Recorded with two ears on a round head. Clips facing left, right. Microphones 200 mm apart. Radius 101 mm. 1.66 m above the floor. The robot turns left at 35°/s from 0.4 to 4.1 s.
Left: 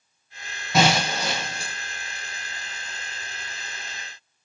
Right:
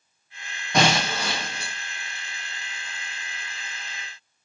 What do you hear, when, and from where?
0.7 s breaking glass: 175° left, 2.5 m; by 1.7 s 140° left, 2.5 m